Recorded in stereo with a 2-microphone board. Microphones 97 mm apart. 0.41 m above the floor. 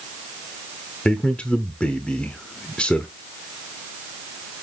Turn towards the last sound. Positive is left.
turn(degrees=10)  # may be behind; listen again after turning